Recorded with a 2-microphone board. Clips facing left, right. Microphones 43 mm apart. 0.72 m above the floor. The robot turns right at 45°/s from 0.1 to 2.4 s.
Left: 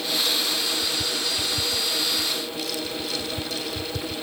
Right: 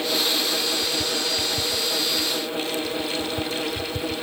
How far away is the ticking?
No ticking in this recording.